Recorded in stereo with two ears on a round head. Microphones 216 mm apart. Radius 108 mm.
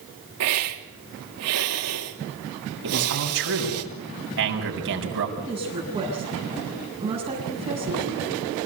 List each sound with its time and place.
0.4 s a hiss: 70° right (ahead or behind), 3 m
2.8 s a man speaking: 55° right (ahead or behind), 7 m
5.4 s a woman speaking: 15° right (ahead or behind), 8.5 m